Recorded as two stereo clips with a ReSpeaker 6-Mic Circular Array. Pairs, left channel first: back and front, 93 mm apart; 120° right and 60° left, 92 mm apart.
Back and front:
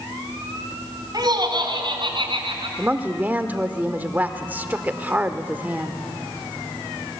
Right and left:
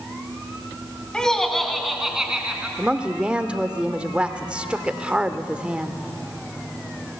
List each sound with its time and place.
1.1 s laughter: 40° right, 3 m; by 2.7 s 20° right, 4 m
2.8 s a woman speaking: 10° left, 1.1 m